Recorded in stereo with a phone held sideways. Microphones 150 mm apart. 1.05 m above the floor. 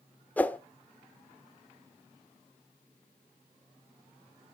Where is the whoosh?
10° left (ahead or behind), 0.8 m.